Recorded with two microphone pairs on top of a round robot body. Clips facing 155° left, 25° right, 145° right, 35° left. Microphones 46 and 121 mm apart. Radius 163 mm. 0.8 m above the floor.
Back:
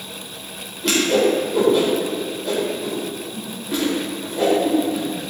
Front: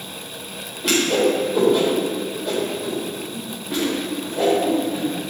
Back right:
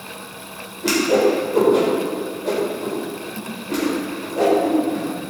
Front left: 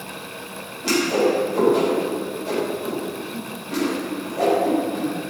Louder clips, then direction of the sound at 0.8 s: Back 1 dB, back right 3 dB; 110° right.